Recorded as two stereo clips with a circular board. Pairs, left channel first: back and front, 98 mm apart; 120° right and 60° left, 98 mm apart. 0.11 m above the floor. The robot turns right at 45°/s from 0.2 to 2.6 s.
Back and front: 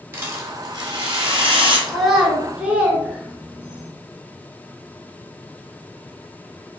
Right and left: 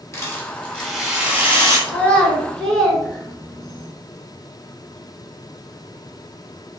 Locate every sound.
0.1 s a rattle: 65° right, 0.8 m; by 1.8 s 5° left, 0.8 m
1.9 s a child speaking: 85° right, 0.6 m; by 3.9 s 55° right, 0.6 m